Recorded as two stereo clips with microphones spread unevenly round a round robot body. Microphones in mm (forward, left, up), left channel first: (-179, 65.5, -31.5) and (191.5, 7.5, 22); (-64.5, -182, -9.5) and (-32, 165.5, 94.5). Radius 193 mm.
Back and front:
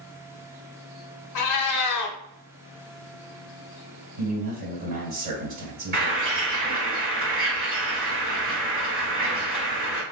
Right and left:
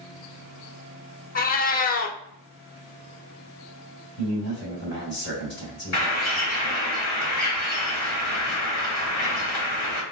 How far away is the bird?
About 2.0 m.